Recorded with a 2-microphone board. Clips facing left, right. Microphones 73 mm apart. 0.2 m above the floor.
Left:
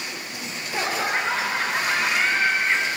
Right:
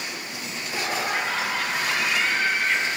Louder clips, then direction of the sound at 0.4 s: Left 3 dB; 40° left (ahead or behind).